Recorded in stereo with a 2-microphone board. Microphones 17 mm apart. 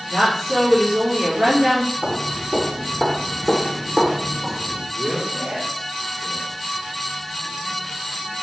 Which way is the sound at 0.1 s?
80° right.